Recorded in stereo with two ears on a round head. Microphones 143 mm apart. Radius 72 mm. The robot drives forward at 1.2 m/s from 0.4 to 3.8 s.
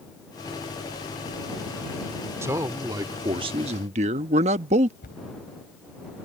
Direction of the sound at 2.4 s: 15° right (ahead or behind).